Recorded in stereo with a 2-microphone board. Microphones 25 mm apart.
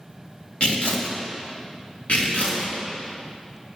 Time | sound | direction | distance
0.6 | tearing paper | 65° left (ahead or behind) | 3 m
2.1 | tearing paper | 75° left (ahead or behind) | 4.5 m